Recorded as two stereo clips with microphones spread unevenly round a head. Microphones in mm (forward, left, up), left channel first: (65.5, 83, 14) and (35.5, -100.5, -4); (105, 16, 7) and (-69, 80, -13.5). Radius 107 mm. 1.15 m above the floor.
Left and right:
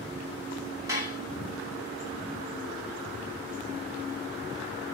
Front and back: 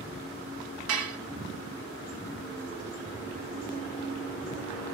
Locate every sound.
0.9 s dishes clattering: 175° right, 1.4 m